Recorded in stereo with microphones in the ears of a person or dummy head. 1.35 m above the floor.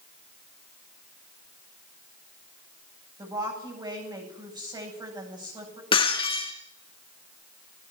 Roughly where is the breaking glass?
Left.